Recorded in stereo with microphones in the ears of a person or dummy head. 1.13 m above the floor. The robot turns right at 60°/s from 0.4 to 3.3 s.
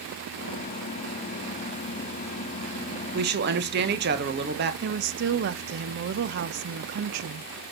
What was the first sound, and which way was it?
A woman speaking, 45° right (ahead or behind).